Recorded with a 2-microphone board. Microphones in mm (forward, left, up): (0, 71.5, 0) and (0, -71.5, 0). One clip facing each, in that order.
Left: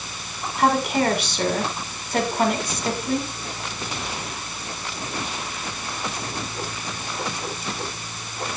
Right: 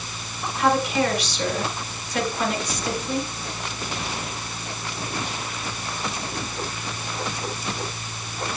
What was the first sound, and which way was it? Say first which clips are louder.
A woman speaking: left 1 dB; 60° left (ahead or behind).